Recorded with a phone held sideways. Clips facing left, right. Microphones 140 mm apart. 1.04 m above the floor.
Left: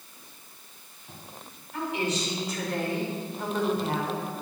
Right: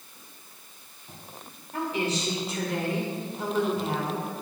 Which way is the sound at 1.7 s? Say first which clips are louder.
Right 1 dB; 40° right (ahead or behind).